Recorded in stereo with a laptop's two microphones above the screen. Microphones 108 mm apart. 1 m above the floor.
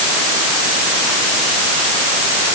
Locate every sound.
Only background noise.